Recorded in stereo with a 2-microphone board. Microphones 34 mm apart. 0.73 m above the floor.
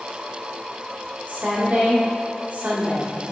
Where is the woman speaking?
55° right (ahead or behind), 1.7 m.